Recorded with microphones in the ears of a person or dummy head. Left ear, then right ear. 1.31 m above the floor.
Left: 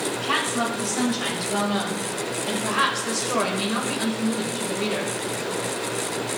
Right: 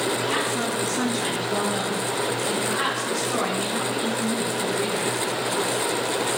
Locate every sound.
0.2 s a woman speaking: 45° left (ahead or behind), 5.5 m; by 5.1 s 80° left, 4.5 m